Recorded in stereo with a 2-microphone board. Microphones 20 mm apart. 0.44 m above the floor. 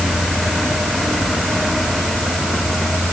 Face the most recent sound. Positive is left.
No sound to turn to.